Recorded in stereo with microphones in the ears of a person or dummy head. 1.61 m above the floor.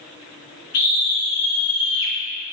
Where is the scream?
50° left (ahead or behind), 1.1 m; by 2.1 s 75° left (ahead or behind), 1.4 m.